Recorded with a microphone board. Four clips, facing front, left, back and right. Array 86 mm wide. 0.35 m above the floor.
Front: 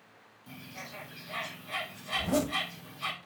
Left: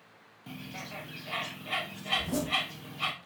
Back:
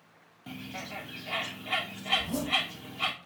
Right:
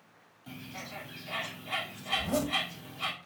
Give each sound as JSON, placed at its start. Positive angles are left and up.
{"t": 0.5, "sound": "a bird", "azimuth_deg": 150, "distance_m": 1.9}
{"t": 2.1, "sound": "a zipper", "azimuth_deg": -25, "distance_m": 1.0}